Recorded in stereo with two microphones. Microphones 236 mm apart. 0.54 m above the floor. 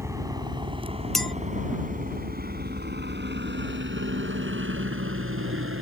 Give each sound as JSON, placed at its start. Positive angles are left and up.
{"t": 0.0, "sound": "a helicopter", "side_deg": -15}
{"t": 1.1, "sound": "a clink", "side_deg": 0}